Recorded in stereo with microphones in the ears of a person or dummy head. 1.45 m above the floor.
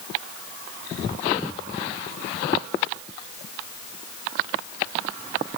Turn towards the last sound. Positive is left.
No sound to turn to.